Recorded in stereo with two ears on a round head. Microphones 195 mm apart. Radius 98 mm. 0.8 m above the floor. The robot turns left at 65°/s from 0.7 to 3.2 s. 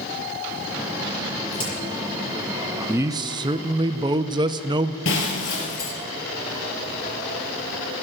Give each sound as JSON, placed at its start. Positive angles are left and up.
{"t": 1.5, "sound": "a crack", "side_deg": 20, "distance_m": 6.5}
{"t": 2.9, "sound": "a man speaking", "side_deg": -10, "distance_m": 0.6}
{"t": 5.0, "sound": "breaking glass", "side_deg": 60, "distance_m": 3.5}